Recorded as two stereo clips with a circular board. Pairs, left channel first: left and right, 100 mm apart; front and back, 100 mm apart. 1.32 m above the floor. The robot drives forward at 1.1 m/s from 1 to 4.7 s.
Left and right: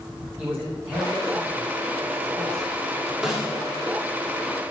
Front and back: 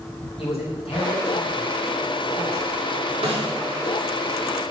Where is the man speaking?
20° right, 5.5 m; by 2.7 s 30° right, 3.5 m.